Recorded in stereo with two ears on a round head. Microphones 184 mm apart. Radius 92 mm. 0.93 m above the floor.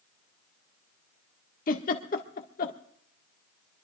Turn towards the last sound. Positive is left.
turn(degrees=45)  # may be behind; listen again after turning